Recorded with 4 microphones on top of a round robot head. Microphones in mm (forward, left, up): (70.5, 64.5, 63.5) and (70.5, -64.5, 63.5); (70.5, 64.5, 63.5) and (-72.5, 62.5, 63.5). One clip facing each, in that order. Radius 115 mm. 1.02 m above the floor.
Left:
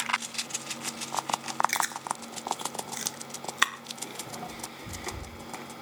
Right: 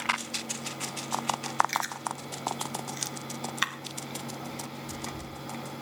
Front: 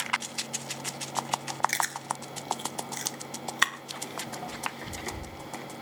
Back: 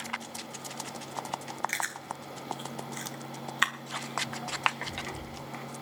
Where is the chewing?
50° left, 1.2 m.